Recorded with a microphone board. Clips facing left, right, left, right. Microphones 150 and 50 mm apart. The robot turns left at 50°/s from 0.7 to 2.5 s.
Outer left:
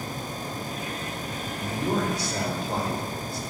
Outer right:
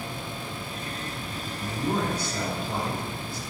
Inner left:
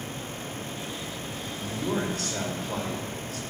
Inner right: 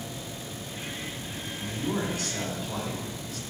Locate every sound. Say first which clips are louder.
1.6 s a man speaking: outer left 1 dB, inner left 1 dB; 120° left, 3 m; by 3.4 s 75° left, 3 m